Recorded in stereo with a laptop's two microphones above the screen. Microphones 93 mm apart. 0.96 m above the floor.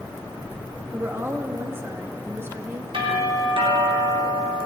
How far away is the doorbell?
About 3.5 m.